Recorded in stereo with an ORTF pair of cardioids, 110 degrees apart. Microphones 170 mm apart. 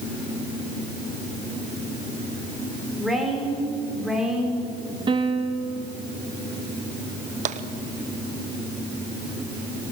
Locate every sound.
3.0 s a woman speaking: straight ahead, 6.5 m; by 5.0 s 5° right, 5.5 m
5.1 s a piano: 30° right, 1.7 m
7.5 s tapping: 45° right, 1.1 m